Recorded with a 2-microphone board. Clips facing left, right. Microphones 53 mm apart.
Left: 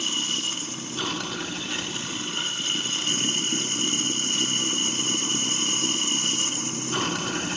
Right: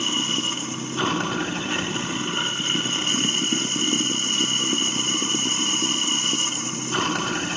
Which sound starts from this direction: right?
Running water, at 0.0 s.